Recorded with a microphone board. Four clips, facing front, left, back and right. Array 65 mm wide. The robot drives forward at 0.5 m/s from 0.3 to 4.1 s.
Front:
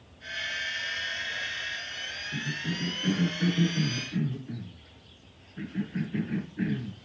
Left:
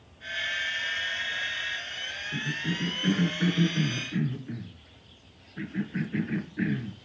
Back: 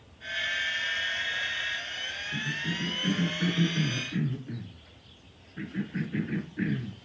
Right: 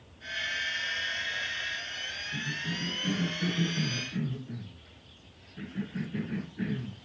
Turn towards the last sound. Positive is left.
turn(degrees=115)